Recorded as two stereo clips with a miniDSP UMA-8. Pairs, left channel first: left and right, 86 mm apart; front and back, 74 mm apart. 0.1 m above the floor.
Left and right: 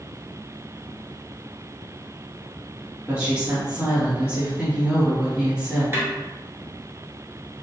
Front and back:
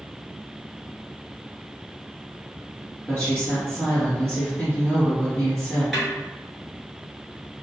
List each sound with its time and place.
3.1 s a woman speaking: 40° right, 1.4 m
5.9 s a snare drum: 85° right, 1.5 m